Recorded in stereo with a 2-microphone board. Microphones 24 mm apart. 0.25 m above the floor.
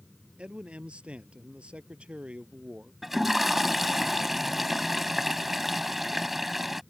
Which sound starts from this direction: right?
A man speaking, at 0.4 s.